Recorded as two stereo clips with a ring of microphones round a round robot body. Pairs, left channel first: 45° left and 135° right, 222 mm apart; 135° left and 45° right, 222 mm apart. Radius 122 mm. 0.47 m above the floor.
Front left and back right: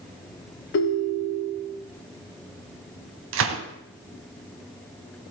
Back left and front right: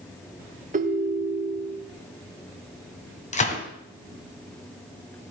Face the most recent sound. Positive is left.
turn(degrees=-165)